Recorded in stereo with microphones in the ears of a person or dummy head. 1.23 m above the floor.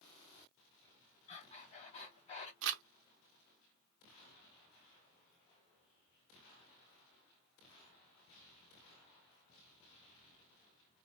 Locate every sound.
1.3 s breathing: 35° left (ahead or behind), 1.1 m
2.6 s crumpling: 70° right (ahead or behind), 0.6 m